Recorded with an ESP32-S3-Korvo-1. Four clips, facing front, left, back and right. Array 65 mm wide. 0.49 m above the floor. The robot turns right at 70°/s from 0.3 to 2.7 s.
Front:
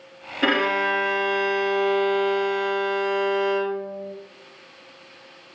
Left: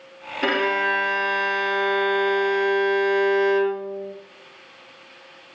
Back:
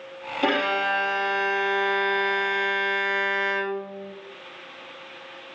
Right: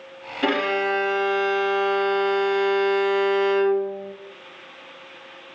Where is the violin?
15° left, 1.3 m; by 4.1 s 175° left, 1.3 m.